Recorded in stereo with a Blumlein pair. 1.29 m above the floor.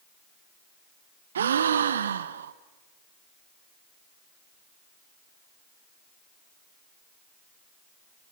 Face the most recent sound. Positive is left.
turn(degrees=-65)